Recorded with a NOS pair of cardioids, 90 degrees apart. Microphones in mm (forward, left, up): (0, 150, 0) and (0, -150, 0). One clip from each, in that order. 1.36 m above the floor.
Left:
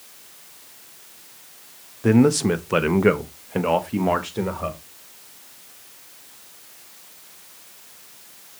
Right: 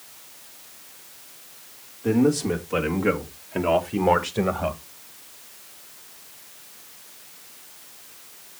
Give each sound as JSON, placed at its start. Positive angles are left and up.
{"t": 2.0, "sound": "a man speaking", "azimuth_deg": 70, "distance_m": 1.4}